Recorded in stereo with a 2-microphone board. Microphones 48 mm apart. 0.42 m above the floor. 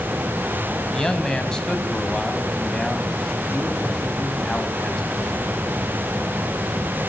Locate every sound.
0.9 s a man speaking: 15° left (ahead or behind), 3 m